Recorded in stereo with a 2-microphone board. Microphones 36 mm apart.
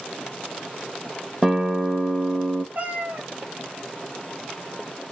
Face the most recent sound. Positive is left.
turn(degrees=-50)  # may be behind; listen again after turning